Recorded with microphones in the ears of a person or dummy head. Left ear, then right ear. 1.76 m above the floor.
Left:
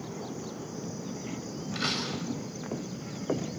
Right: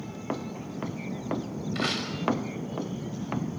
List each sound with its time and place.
1.8 s a door slam: 10° right (ahead or behind), 5.5 m